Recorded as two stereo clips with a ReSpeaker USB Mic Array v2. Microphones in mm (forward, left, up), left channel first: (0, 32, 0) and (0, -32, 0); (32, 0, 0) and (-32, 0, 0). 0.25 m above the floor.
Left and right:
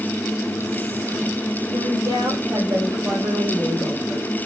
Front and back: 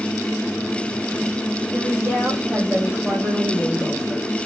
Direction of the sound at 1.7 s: 120° right.